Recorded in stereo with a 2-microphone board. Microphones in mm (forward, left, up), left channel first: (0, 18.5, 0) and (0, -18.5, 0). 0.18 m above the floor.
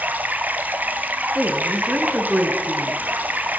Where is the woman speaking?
30° right (ahead or behind), 2.0 m.